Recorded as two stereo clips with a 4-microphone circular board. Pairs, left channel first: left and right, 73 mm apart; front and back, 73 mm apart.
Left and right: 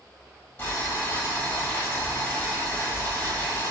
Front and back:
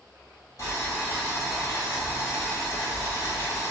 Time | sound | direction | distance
0.6 | boiling | 30° left | 1.8 m